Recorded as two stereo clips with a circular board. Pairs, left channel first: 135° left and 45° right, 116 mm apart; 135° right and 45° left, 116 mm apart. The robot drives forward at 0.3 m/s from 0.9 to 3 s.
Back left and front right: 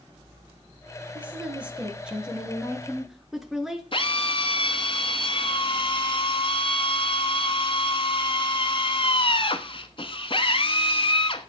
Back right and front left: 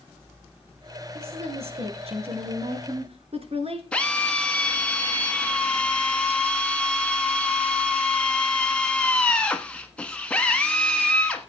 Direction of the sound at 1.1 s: 30° left.